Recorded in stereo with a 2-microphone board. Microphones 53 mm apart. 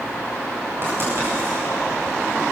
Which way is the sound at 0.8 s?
45° right (ahead or behind).